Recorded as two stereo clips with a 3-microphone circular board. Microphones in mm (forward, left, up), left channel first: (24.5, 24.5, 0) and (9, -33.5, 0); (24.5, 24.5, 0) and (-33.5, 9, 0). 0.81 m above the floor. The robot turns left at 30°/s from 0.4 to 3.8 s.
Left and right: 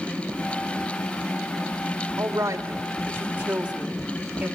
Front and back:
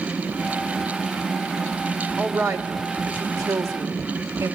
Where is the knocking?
I don't hear knocking.